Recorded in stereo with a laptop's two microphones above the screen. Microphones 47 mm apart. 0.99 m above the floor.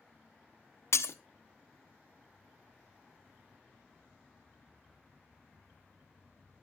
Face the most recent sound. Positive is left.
turn(degrees=75)  # may be behind; listen again after turning